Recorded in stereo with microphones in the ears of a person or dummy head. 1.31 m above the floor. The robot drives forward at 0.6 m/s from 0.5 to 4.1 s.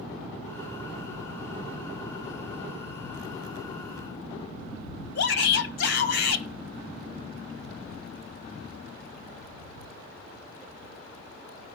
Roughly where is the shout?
Left.